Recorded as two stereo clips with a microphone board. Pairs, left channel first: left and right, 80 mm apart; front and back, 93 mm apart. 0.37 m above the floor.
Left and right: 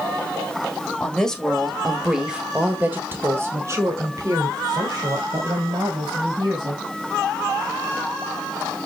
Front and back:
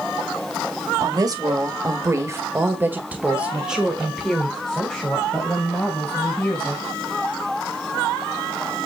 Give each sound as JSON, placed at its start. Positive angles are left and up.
{"t": 1.0, "sound": "a woman speaking", "azimuth_deg": 165, "distance_m": 1.6}